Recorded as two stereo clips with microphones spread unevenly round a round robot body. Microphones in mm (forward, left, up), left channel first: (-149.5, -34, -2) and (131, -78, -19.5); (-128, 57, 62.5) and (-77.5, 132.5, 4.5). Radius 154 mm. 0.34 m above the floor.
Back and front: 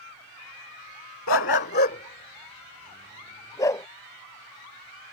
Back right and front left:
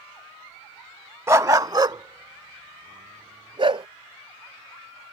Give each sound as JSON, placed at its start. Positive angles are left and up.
{"t": 1.3, "sound": "a dog barking", "azimuth_deg": 120}